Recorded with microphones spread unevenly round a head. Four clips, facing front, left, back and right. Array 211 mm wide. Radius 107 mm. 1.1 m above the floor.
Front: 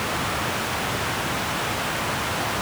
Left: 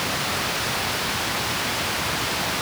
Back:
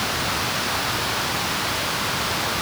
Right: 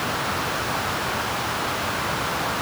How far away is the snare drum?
I don't hear a snare drum.